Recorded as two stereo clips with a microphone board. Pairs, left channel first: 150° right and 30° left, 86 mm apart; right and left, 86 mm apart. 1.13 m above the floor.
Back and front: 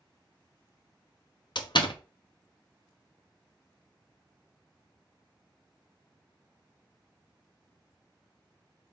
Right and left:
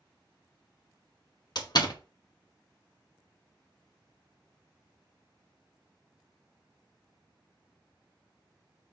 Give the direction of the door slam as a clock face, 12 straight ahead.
4 o'clock.